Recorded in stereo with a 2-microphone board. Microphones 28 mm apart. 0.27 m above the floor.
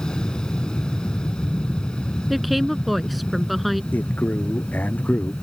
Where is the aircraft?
30° left (ahead or behind); by 5.4 s 40° left (ahead or behind).